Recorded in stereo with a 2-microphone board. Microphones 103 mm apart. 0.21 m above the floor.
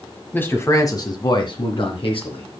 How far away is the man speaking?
About 1.5 m.